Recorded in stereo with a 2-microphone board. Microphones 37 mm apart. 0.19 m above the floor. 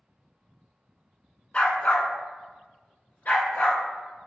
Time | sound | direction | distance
1.5 | a dog barking | 35° left (ahead or behind) | 0.7 m